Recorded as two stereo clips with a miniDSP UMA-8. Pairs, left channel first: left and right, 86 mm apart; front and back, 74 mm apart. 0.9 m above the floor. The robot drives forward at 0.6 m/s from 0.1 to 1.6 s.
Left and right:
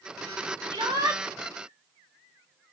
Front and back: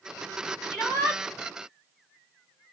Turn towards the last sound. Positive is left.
turn(degrees=-95)